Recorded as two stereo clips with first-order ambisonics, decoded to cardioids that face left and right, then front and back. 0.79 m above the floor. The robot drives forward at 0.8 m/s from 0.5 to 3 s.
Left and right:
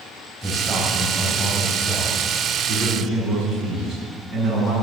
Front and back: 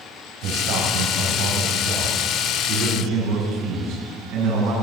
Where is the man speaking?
175° left, 4 m.